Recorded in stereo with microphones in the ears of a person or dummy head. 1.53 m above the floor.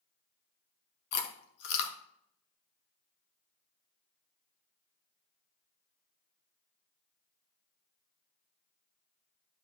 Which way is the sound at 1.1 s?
60° left (ahead or behind).